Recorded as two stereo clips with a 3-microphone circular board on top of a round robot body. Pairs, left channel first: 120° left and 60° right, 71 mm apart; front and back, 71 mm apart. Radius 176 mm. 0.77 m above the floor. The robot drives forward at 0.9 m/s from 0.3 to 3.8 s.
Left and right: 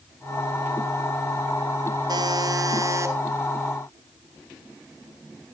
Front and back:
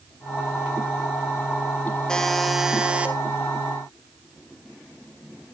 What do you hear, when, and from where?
2.1 s a buzzer: 80° right, 1.8 m; by 3.1 s 110° right, 1.9 m